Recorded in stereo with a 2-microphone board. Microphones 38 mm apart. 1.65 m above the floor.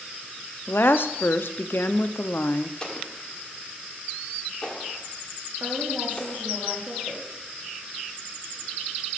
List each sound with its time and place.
0.7 s a woman speaking: 65° left (ahead or behind), 0.5 m
2.8 s an explosion: 25° left (ahead or behind), 1.3 m
5.6 s a woman speaking: 50° right (ahead or behind), 3 m